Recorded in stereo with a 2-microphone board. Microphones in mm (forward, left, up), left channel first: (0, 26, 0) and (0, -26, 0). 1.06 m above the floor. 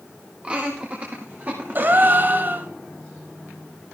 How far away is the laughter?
About 1.8 m.